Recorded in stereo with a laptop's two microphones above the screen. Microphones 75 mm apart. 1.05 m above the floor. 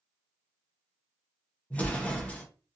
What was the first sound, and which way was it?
An explosion, 20° left (ahead or behind).